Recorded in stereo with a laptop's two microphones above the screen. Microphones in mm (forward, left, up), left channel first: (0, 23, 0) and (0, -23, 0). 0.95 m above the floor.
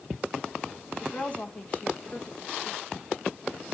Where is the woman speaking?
35° left (ahead or behind), 1.1 m.